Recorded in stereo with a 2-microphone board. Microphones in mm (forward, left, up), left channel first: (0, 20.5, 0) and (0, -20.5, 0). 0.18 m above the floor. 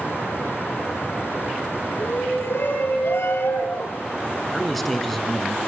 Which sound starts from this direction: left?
A shout, at 2.0 s.